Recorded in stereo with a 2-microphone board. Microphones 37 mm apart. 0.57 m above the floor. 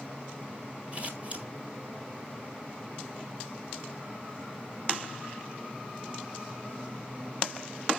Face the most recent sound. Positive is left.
turn(degrees=-35)  # may be behind; listen again after turning